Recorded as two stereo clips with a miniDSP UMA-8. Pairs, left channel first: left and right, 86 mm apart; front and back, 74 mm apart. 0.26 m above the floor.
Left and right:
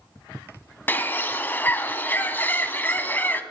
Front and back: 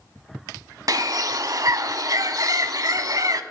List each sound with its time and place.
0.9 s a bird: 155° left, 0.6 m